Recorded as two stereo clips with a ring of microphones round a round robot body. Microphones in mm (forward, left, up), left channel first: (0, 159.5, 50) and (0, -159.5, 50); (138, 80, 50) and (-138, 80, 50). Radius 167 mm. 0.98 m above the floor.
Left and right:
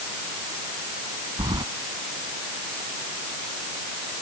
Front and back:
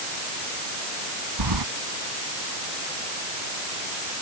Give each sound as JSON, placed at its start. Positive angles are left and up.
{"t": 1.4, "sound": "keys jangling", "azimuth_deg": -170}